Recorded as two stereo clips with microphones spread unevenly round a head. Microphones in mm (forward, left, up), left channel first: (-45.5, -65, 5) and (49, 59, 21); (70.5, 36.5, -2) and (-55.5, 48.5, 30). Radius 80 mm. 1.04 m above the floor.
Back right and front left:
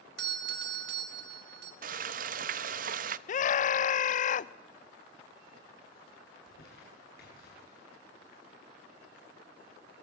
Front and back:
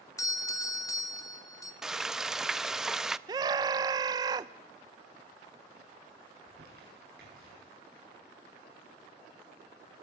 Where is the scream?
115° right, 0.7 m.